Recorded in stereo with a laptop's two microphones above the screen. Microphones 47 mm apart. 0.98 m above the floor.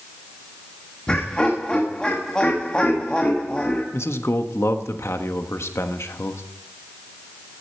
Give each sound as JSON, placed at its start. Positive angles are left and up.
{"t": 1.1, "sound": "laughter", "side_deg": 20, "distance_m": 1.3}
{"t": 3.9, "sound": "a man speaking", "side_deg": 70, "distance_m": 1.2}